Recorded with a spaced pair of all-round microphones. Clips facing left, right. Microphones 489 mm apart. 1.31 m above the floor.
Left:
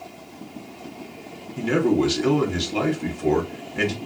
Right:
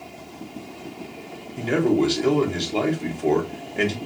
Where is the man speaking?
30° left (ahead or behind), 0.7 m.